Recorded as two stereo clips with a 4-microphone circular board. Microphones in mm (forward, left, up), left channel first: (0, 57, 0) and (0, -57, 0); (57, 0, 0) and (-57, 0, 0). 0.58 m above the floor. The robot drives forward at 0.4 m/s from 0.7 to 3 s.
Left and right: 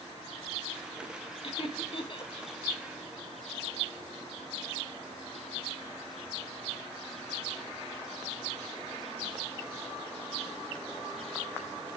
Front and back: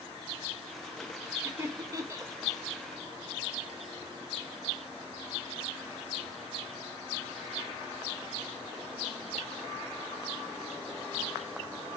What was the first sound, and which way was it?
Laughter, 120° left.